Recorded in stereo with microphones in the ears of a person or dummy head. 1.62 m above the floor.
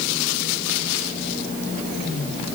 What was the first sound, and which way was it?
Only background noise.